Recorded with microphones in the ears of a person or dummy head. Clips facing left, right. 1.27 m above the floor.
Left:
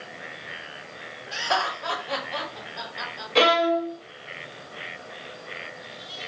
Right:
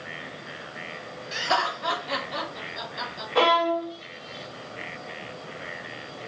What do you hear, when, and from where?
1.3 s laughter: 25° right (ahead or behind), 3 m
3.4 s a violin: 25° left (ahead or behind), 0.7 m